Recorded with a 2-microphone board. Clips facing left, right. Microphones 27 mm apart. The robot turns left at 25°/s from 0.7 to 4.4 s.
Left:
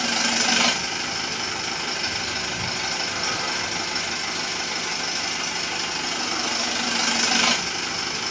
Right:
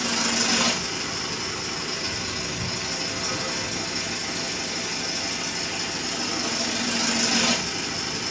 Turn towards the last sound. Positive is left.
turn(degrees=40)